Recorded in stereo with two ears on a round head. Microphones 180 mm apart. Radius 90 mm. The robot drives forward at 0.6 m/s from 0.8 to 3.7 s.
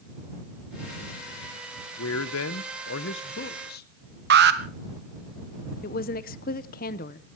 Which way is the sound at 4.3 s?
55° right (ahead or behind).